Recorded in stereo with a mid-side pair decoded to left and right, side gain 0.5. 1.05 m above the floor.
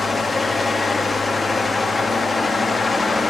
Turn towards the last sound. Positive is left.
turn(degrees=20)